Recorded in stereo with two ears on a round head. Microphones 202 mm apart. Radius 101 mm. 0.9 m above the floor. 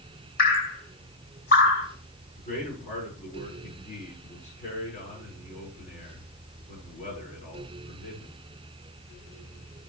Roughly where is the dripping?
Left.